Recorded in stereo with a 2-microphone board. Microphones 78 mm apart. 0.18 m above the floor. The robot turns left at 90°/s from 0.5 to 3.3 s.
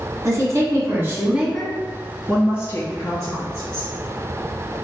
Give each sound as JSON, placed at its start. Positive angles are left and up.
{"t": 0.2, "sound": "a woman speaking", "azimuth_deg": -75, "distance_m": 1.3}
{"t": 2.3, "sound": "a woman speaking", "azimuth_deg": 170, "distance_m": 1.9}